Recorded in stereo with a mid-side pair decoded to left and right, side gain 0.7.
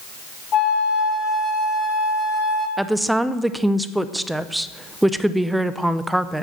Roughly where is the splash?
No splash in this recording.